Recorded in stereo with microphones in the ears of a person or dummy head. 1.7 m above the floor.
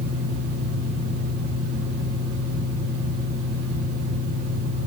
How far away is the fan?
About 4 m.